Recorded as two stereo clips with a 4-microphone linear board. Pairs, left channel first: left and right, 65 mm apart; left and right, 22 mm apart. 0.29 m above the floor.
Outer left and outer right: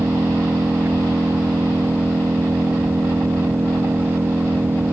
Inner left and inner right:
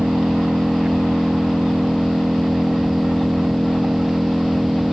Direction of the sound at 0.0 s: 40° right (ahead or behind).